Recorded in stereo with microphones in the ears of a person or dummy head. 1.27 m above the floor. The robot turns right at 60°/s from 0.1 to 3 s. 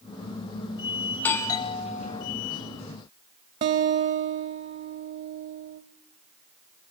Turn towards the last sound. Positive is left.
turn(degrees=-30)  # may be behind; listen again after turning